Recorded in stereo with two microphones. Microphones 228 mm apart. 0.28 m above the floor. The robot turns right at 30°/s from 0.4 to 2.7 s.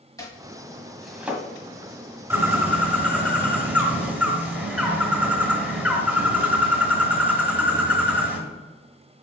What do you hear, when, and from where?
0.2 s chopping: 15° left (ahead or behind), 1.4 m; by 1.4 s 10° right (ahead or behind), 1.4 m
2.3 s a bird: 10° right (ahead or behind), 1.5 m; by 8.4 s 5° right (ahead or behind), 1.5 m